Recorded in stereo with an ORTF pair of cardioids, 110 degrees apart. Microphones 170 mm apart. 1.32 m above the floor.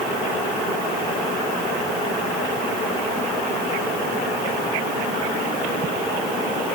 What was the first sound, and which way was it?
Only background noise.